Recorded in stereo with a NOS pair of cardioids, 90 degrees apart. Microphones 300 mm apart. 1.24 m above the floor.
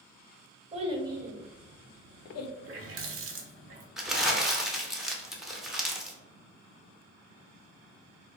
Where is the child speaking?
20° right, 0.8 m; by 2.5 s 65° left, 0.5 m.